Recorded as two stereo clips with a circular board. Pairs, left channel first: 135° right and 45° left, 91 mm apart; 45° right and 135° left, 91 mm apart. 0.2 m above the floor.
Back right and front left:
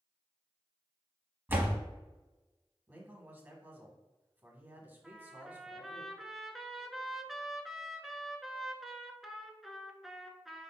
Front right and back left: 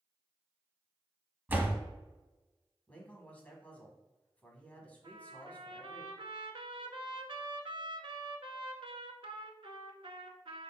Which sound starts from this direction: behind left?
A trumpet, at 5.0 s.